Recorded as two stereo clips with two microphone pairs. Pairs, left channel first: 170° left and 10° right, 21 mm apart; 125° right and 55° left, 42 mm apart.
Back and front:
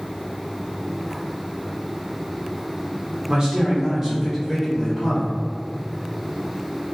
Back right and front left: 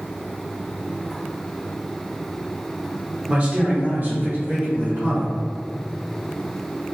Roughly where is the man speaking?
Ahead.